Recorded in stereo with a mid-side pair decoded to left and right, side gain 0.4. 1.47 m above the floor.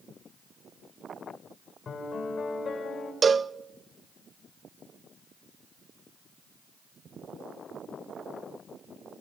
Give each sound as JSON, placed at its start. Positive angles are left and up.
{"t": 1.9, "sound": "a piano", "azimuth_deg": 55, "distance_m": 5.5}
{"t": 3.2, "sound": "a cowbell", "azimuth_deg": -45, "distance_m": 0.6}